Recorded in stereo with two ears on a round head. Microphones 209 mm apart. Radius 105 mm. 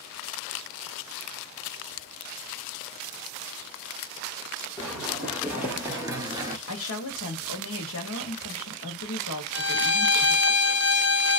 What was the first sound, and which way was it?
Running footsteps, 5° right (ahead or behind).